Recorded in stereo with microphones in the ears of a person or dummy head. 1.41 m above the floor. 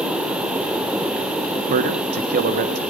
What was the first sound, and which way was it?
A man speaking, 50° right (ahead or behind).